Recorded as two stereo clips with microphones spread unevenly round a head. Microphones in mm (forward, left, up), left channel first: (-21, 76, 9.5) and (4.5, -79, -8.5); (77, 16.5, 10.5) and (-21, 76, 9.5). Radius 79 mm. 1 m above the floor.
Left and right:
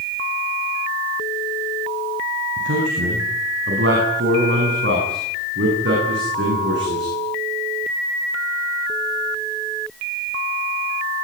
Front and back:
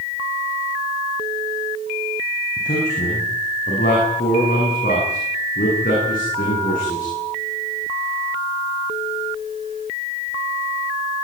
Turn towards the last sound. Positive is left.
turn(degrees=-55)